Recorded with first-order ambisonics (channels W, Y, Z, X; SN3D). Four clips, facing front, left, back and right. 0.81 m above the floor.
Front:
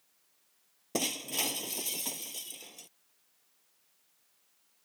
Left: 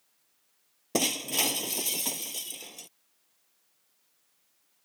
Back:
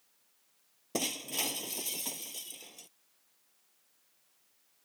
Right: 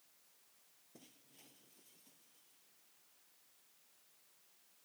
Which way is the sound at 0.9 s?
85° left.